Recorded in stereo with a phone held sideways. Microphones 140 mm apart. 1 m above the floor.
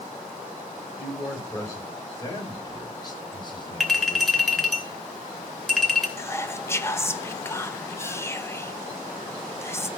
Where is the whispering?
20° left (ahead or behind), 0.8 m.